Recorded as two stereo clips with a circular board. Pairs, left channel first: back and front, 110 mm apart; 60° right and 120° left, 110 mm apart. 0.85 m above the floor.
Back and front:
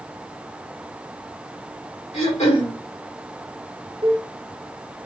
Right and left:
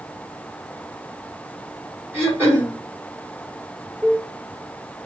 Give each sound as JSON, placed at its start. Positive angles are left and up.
{"t": 2.1, "sound": "throat clearing", "azimuth_deg": -175, "distance_m": 1.8}
{"t": 4.0, "sound": "a cowbell", "azimuth_deg": 25, "distance_m": 0.7}